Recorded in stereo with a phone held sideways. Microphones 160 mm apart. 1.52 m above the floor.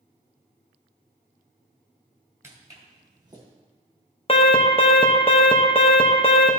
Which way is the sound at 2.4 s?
20° right (ahead or behind).